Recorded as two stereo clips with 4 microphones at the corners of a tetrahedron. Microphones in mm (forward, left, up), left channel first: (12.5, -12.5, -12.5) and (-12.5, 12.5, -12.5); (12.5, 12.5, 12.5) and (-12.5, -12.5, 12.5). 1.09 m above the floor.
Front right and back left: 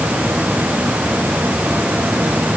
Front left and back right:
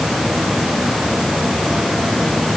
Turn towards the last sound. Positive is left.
No sound to turn to.